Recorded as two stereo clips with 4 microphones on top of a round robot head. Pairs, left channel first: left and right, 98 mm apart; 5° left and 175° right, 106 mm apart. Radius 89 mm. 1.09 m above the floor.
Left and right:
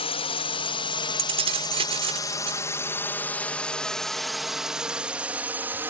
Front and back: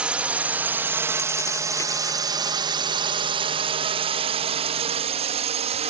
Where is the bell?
No bell in this recording.